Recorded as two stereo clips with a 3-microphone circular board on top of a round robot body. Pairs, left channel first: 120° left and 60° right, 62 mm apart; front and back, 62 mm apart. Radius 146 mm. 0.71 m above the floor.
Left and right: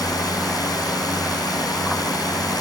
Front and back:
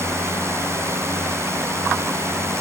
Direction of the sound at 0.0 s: 135° left.